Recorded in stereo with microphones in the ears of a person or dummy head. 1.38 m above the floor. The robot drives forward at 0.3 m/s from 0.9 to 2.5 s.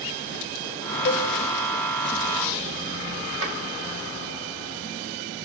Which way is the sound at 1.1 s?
55° left (ahead or behind).